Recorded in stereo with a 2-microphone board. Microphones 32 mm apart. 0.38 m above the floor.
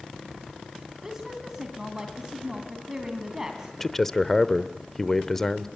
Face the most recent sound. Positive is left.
turn(degrees=10)  # may be behind; listen again after turning